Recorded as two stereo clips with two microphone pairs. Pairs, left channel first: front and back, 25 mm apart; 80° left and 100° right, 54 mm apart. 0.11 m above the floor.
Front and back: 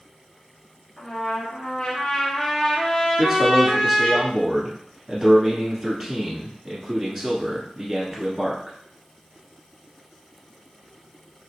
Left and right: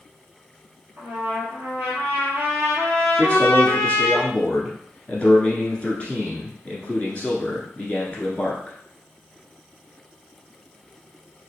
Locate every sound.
1.0 s a trumpet: 60° right, 2 m
3.2 s a man speaking: 95° left, 1.2 m